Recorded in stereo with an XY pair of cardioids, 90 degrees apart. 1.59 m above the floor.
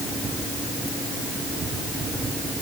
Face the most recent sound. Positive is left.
No sound to turn to.